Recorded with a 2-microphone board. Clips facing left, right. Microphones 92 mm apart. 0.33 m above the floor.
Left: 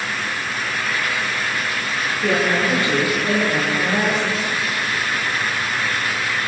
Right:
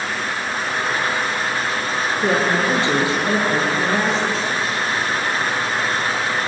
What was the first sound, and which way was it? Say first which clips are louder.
A woman speaking: even; 25° right (ahead or behind).